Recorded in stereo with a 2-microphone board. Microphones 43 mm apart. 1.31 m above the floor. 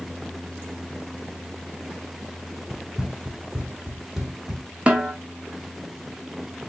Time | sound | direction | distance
2.7 | running footsteps | 20° right (ahead or behind) | 1.6 m
4.9 | a snare drum | 30° right (ahead or behind) | 0.9 m